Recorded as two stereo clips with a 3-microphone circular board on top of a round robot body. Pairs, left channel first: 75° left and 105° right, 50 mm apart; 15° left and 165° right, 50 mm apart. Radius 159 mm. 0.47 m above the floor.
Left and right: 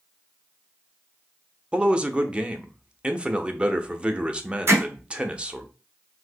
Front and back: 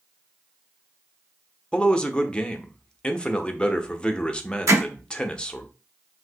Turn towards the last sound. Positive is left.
turn(degrees=-145)